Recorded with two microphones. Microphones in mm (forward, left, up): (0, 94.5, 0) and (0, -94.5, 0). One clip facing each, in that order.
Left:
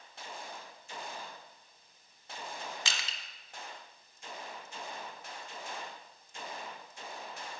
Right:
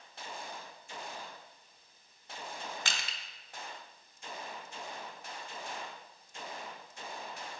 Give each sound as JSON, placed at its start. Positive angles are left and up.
{"t": 2.9, "sound": "crushing", "side_deg": -55, "distance_m": 1.1}